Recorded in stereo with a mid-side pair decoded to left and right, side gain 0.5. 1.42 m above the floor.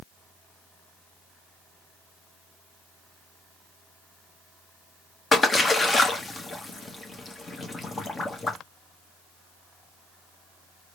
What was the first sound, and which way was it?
A splash, 30° left.